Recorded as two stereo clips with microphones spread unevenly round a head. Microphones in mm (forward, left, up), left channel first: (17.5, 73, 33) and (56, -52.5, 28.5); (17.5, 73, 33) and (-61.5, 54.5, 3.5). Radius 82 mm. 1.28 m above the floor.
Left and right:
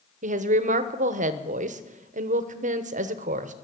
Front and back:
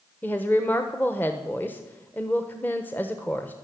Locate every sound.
0.2 s a woman speaking: 70° right, 0.9 m